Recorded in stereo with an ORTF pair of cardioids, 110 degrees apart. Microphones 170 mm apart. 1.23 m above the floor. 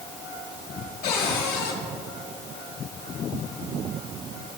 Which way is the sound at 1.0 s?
70° left.